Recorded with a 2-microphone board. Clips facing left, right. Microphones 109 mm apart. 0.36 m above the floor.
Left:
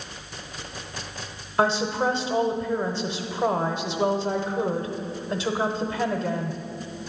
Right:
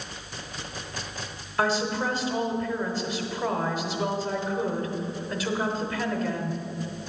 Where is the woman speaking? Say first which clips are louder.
Left 3 dB; 25° left (ahead or behind), 0.9 m.